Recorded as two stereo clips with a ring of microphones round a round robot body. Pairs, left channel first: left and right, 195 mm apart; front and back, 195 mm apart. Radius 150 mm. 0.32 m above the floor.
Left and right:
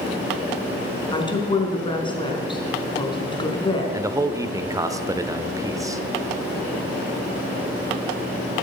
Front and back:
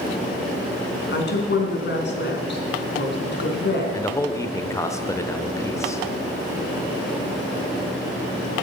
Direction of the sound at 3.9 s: 50° right.